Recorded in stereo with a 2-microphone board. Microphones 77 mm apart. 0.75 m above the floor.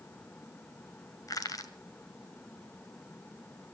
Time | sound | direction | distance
1.3 | crushing | 50° left (ahead or behind) | 1.6 m